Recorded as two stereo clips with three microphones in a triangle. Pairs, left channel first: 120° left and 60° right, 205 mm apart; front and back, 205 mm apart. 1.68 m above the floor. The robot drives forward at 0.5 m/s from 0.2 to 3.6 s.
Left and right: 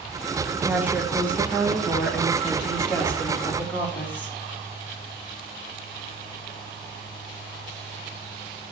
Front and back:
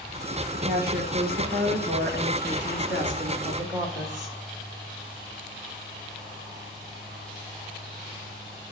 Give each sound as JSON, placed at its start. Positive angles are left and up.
{"t": 0.5, "sound": "a woman speaking", "azimuth_deg": -135, "distance_m": 1.6}